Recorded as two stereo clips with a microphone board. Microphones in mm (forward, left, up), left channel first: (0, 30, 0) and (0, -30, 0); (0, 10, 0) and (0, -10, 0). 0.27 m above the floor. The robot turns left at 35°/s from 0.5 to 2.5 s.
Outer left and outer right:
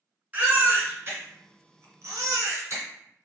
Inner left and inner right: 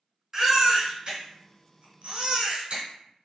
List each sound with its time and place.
0.3 s a baby crying: 25° right (ahead or behind), 1.6 m; by 2.8 s 55° right (ahead or behind), 1.6 m